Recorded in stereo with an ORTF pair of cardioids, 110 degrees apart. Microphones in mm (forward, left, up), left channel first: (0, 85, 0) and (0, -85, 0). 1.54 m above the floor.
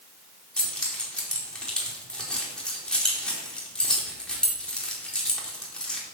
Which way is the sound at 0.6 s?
5° left.